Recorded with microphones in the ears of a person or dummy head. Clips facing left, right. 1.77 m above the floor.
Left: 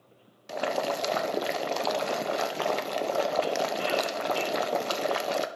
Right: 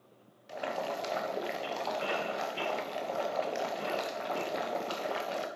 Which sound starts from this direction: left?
Boiling, at 0.5 s.